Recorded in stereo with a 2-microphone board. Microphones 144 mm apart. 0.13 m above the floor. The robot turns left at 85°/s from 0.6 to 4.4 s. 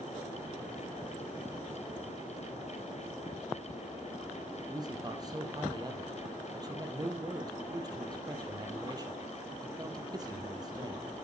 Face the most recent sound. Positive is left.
turn(degrees=-25)  # may be behind; listen again after turning